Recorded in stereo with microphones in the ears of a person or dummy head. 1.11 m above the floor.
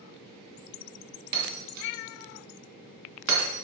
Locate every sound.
1.3 s breaking glass: 55° right (ahead or behind), 2.5 m